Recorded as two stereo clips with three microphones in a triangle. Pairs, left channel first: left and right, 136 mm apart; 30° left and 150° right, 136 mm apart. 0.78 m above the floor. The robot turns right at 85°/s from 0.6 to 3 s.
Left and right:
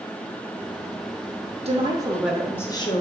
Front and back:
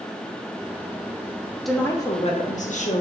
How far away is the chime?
I don't hear a chime.